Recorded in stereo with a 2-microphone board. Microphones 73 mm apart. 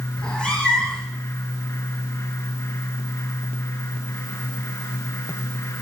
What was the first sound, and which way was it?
A cat meowing, 15° left (ahead or behind).